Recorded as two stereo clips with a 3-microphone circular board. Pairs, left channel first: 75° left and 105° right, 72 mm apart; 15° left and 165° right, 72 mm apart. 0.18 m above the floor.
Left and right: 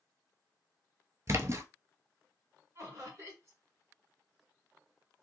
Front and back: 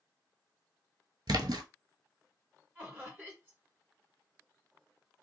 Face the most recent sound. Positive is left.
turn(degrees=-110)